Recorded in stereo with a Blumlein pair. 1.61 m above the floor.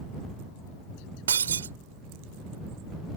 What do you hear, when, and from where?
1.3 s breaking glass: 70° right